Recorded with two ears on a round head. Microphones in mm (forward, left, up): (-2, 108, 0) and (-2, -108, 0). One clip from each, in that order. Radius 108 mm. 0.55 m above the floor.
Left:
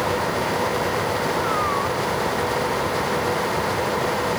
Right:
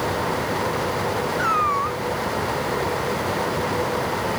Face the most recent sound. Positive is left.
turn(degrees=-60)  # may be behind; listen again after turning